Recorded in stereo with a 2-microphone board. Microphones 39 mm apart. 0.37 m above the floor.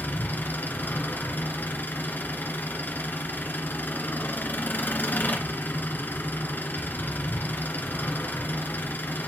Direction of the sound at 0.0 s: 55° left (ahead or behind).